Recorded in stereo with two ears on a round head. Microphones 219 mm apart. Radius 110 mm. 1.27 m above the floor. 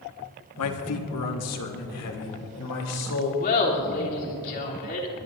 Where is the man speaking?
70° left (ahead or behind), 1.4 m; by 3.3 s 75° left (ahead or behind), 4 m.